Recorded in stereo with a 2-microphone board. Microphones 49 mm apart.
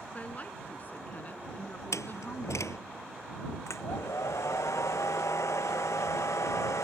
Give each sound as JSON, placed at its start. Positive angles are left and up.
{"t": 0.1, "sound": "a woman speaking", "side_deg": 30}
{"t": 1.9, "sound": "a door slam", "side_deg": 85}
{"t": 3.7, "sound": "a hair dryer", "side_deg": 85}